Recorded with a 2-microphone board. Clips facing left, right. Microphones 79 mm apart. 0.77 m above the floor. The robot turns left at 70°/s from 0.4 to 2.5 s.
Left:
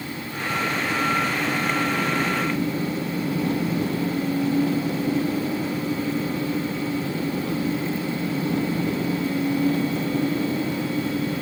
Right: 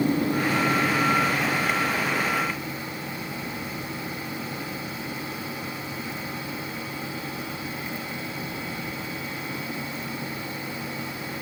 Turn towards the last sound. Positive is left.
turn(degrees=90)